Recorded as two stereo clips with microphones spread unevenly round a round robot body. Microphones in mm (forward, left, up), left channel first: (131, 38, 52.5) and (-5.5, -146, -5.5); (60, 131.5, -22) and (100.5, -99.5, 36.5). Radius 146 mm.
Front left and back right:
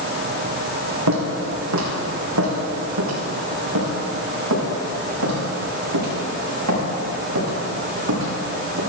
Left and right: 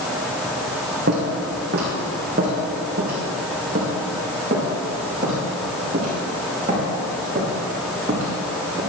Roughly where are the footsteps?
Behind right.